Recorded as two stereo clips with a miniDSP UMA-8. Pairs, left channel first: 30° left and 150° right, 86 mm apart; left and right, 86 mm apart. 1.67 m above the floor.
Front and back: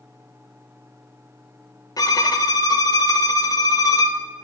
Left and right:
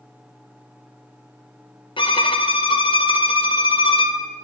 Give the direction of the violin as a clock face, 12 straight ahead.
9 o'clock.